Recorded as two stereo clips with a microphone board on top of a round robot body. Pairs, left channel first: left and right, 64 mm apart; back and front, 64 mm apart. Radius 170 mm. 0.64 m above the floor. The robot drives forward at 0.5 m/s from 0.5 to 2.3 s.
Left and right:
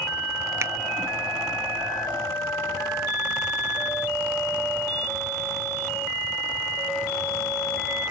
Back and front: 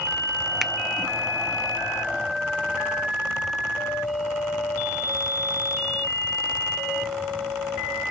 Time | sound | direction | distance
0.6 | a finger snap | 85° right | 0.7 m